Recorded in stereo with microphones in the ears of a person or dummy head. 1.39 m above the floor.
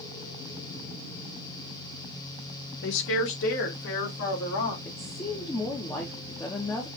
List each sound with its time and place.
2.8 s a woman speaking: 70° left (ahead or behind), 0.8 m; by 4.8 s 75° left (ahead or behind), 2 m
4.8 s a woman speaking: 15° left (ahead or behind), 0.7 m